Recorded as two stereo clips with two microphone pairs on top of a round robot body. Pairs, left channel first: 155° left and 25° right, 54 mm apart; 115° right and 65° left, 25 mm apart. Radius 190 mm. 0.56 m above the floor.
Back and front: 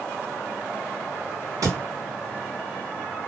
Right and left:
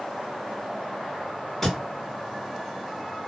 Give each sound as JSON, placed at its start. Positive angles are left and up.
{"t": 1.6, "sound": "a thud", "azimuth_deg": -35, "distance_m": 1.2}